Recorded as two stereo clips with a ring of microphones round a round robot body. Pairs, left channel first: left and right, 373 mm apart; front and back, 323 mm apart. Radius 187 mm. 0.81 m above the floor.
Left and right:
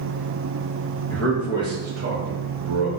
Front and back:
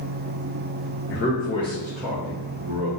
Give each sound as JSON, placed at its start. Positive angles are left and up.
{"t": 1.1, "sound": "a man speaking", "azimuth_deg": 10, "distance_m": 0.7}